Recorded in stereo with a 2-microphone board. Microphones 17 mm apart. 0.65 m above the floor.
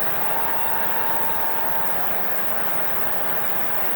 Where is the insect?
75° left (ahead or behind), 2 m.